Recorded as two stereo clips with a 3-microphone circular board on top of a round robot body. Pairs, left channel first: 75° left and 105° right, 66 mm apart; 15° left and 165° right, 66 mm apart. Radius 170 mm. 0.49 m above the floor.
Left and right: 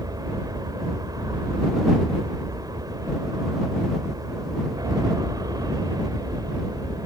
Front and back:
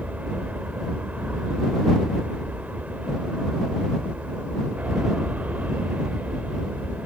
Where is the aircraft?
100° right.